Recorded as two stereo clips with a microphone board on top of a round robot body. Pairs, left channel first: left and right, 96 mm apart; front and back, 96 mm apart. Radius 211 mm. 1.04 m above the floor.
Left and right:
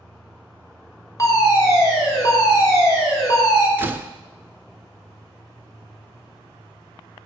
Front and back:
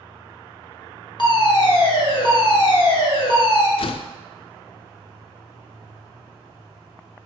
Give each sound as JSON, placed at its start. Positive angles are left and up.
{"t": 1.2, "sound": "a fire alarm", "azimuth_deg": 35, "distance_m": 3.5}
{"t": 3.8, "sound": "a door slam", "azimuth_deg": -20, "distance_m": 0.7}